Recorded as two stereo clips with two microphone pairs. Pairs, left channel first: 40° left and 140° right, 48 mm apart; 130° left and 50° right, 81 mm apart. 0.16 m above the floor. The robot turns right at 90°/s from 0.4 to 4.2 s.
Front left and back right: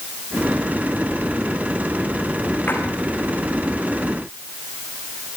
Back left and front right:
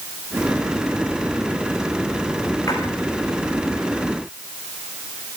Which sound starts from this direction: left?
A splash, at 2.7 s.